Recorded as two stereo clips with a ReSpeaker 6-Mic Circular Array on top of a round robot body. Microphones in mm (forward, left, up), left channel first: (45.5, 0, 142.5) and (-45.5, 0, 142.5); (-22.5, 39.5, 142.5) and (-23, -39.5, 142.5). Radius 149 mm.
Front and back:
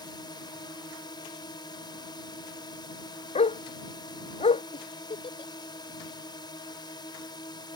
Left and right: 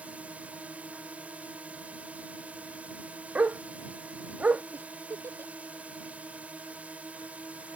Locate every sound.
0.0 s a drone: 20° right
3.4 s a dog barking: 15° right
4.7 s a giggle: 30° right